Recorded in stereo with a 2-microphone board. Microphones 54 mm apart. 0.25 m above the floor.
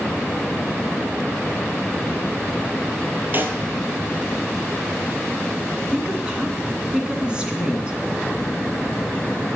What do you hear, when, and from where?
3.3 s a snare drum: 40° right (ahead or behind), 1.6 m
5.9 s a woman speaking: 15° right (ahead or behind), 3 m